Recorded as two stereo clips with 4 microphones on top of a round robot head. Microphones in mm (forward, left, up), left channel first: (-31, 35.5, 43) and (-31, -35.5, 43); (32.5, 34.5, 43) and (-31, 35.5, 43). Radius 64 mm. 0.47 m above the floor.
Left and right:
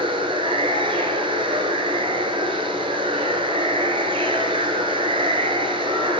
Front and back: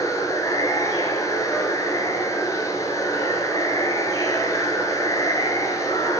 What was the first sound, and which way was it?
Running water, 60° right.